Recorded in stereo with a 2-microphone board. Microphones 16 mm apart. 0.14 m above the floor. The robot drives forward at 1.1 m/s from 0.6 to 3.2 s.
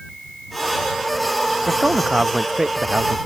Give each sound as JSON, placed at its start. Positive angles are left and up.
{"t": 1.7, "sound": "a man speaking", "side_deg": -50}